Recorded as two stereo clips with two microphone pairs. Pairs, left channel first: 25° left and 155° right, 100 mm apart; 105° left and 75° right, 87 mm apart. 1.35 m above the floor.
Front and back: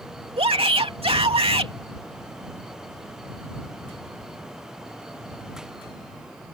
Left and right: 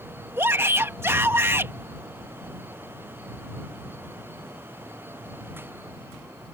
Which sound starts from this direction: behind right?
A shout, at 0.4 s.